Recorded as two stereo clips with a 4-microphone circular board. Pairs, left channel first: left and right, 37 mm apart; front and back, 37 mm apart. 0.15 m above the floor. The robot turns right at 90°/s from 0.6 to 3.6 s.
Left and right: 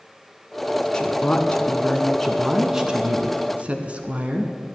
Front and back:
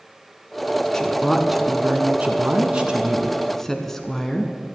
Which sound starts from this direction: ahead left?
A woman speaking, at 0.9 s.